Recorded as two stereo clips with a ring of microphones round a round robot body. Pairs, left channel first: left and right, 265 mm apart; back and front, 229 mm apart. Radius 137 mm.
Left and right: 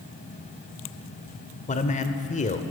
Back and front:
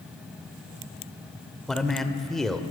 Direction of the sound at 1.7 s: 95° left.